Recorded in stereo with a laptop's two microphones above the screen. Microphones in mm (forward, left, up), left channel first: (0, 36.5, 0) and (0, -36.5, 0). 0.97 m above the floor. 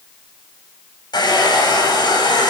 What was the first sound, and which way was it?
A hair dryer, 80° left.